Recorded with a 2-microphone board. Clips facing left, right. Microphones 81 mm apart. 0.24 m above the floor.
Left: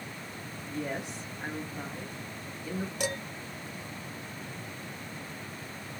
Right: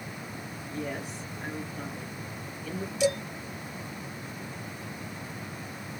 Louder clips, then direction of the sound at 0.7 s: Even; 25° left (ahead or behind).